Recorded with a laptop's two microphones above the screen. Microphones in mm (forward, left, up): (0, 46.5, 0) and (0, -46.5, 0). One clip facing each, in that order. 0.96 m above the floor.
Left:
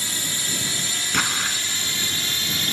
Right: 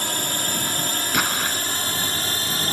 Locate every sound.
0.0 s a drone: 50° right (ahead or behind); by 2.7 s 35° right (ahead or behind)
1.1 s an explosion: 5° right (ahead or behind)